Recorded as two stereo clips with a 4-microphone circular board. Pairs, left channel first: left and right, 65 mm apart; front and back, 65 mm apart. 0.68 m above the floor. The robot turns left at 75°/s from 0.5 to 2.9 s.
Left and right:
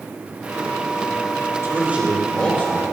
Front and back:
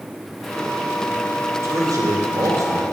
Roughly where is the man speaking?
Behind right.